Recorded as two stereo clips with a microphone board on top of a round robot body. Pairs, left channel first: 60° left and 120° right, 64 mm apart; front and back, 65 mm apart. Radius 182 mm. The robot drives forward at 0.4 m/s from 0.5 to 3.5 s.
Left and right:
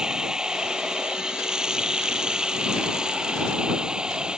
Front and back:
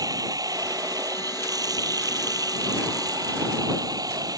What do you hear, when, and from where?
0.0 s running water: 160° left